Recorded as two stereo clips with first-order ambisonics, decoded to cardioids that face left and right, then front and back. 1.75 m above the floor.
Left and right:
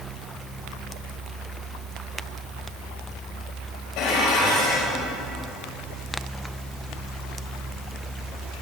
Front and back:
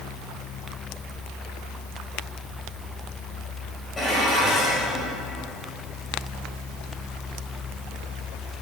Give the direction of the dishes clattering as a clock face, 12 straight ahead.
10 o'clock.